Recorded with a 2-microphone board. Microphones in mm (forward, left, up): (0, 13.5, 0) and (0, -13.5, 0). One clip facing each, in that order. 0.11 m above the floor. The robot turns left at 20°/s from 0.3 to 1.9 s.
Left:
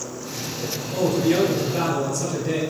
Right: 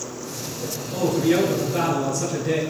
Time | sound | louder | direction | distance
0.9 | a man speaking | even | 10° right (ahead or behind) | 1.2 m